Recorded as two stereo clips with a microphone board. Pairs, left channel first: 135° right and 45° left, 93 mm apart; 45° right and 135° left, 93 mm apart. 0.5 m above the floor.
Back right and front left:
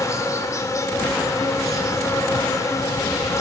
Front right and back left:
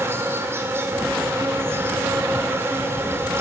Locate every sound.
0.0 s an insect: 175° right, 3 m